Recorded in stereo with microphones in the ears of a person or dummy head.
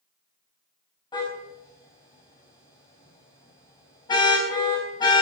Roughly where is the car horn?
Left.